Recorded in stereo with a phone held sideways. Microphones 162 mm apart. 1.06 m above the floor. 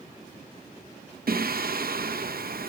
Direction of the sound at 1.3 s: 70° right (ahead or behind).